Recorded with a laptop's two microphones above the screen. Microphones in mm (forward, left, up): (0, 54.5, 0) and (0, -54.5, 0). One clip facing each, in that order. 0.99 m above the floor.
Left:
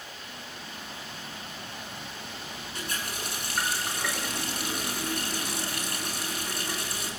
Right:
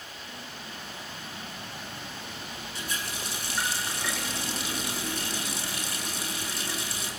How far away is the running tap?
About 8.5 m.